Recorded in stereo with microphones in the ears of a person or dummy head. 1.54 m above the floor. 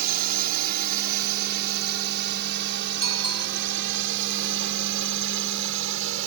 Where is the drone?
55° right (ahead or behind); by 6.3 s 75° right (ahead or behind).